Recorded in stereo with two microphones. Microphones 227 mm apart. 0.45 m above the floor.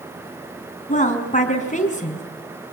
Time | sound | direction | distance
0.9 | a woman speaking | 35° left (ahead or behind) | 4.5 m